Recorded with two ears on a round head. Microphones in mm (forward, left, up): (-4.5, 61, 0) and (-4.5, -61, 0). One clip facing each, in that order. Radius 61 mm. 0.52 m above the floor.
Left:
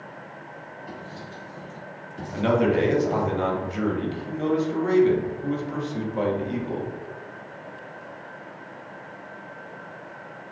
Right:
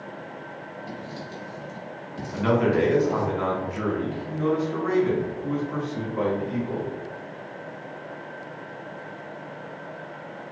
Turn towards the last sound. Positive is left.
turn(degrees=35)  # may be behind; listen again after turning